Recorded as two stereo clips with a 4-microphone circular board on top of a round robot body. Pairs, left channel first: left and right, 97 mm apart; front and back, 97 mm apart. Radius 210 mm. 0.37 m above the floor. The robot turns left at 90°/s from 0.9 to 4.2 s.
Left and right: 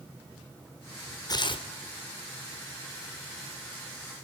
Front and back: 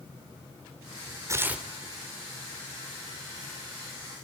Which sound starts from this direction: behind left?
Tearing paper, at 1.3 s.